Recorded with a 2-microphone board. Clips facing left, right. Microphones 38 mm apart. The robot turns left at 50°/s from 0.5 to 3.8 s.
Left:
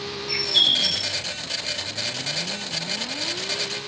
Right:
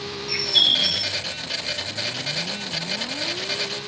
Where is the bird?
25° left, 1.8 m; by 1.2 s 5° right, 1.8 m.